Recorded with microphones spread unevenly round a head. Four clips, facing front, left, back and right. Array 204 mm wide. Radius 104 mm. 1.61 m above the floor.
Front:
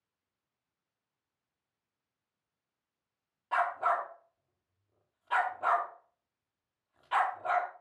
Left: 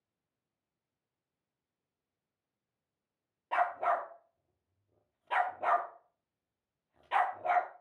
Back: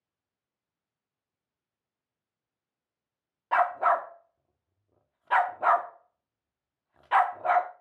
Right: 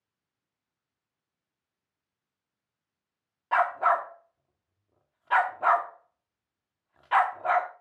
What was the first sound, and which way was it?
A dog barking, straight behind.